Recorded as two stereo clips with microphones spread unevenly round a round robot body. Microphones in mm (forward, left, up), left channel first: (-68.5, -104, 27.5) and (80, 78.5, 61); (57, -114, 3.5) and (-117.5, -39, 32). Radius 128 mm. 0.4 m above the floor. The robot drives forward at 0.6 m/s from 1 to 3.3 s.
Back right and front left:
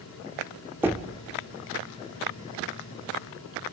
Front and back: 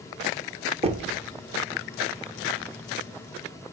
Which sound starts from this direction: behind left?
Knocking, at 0.8 s.